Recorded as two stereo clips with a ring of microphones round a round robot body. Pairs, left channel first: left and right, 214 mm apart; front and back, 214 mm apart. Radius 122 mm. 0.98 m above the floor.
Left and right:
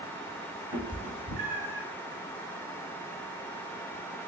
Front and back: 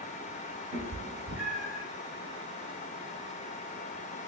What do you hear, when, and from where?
0.7 s a cat meowing: 155° right, 0.8 m; by 1.8 s 80° right, 0.9 m